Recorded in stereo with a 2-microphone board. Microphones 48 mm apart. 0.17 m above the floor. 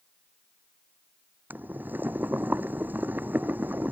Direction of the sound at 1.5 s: 40° right (ahead or behind).